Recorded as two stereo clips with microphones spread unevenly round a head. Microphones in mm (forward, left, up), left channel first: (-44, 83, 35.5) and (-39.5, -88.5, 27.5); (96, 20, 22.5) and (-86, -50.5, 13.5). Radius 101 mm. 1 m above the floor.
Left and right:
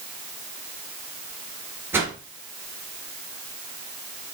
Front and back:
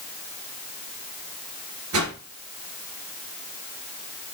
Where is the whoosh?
165° right, 2.5 m.